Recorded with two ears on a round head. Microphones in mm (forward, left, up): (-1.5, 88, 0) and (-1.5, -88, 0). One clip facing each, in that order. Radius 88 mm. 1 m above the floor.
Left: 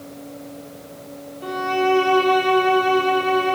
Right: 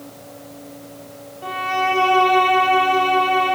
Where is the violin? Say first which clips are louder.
Left 3 dB; 25° left (ahead or behind), 1.4 m.